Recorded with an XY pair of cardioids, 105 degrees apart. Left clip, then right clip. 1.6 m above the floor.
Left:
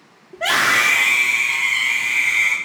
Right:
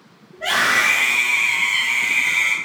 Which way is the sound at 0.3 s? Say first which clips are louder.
Left 1 dB; 65° left.